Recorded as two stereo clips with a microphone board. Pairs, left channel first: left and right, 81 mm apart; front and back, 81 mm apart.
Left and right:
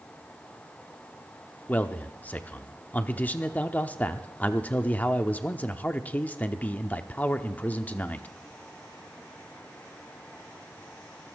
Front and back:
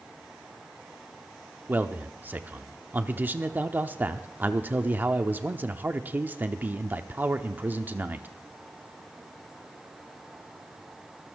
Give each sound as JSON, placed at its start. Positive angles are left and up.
{"t": 1.7, "sound": "a man speaking", "azimuth_deg": 140, "distance_m": 0.7}